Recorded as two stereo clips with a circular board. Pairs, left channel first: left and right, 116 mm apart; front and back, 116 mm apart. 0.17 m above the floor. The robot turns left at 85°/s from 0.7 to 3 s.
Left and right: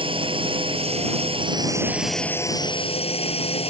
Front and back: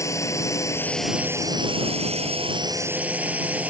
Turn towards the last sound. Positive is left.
turn(degrees=105)